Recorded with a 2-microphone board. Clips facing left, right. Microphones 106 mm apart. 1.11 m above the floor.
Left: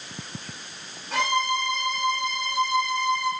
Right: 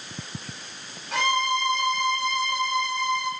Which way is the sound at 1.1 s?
Centre (ahead or behind).